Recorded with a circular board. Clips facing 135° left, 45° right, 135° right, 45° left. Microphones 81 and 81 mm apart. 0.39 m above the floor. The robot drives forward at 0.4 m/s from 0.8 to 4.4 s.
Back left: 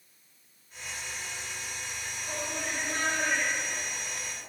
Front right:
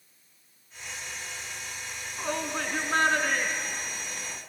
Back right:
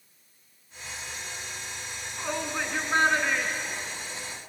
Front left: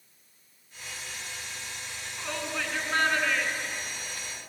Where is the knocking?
I don't hear knocking.